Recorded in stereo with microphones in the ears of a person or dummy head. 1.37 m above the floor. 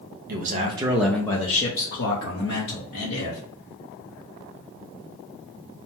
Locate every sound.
0.3 s a man speaking: 50° right (ahead or behind), 0.7 m; by 3.4 s 70° left (ahead or behind), 1.6 m